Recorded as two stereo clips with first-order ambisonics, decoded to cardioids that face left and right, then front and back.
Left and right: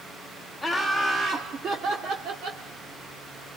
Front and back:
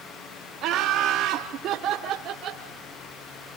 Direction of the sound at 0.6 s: 175° left.